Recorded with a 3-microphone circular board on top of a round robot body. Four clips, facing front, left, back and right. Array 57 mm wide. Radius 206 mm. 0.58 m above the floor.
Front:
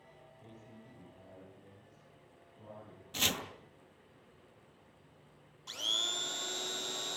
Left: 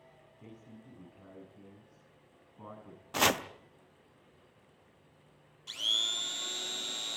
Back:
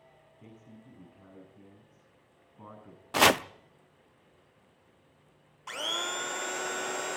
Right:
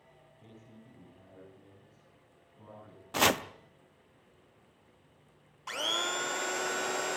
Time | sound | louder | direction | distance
0.4 | a man speaking | left 3 dB, back 4 dB | 140° left | 8.5 m
3.1 | chopping | right 1 dB, back 14 dB | straight behind | 0.8 m
5.7 | a blender | right 3 dB, back 5 dB | 125° right | 1.3 m